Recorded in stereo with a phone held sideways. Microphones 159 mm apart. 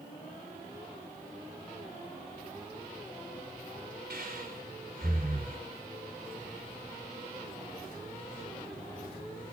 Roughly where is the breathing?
Right.